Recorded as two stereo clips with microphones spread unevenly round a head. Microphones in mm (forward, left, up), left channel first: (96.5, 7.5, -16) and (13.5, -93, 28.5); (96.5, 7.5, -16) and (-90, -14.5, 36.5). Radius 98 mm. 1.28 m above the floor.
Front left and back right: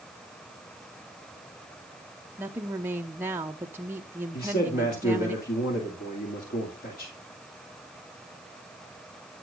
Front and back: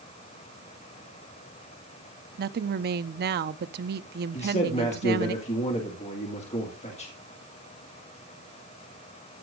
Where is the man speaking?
65° left, 2.5 m.